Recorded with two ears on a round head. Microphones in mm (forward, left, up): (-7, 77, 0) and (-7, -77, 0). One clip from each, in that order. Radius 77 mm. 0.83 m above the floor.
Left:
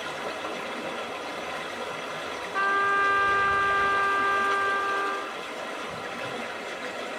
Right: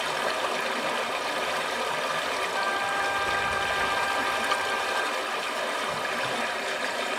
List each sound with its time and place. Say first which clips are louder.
0.0 s running water: right 5 dB; 50° right (ahead or behind), 0.8 m
2.5 s a trumpet: left 7 dB; 65° left (ahead or behind), 1.1 m